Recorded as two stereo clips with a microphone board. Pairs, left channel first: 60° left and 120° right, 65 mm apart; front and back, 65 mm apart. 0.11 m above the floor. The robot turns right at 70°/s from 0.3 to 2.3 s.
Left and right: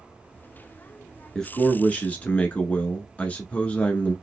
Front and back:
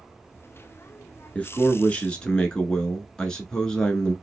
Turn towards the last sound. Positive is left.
turn(degrees=60)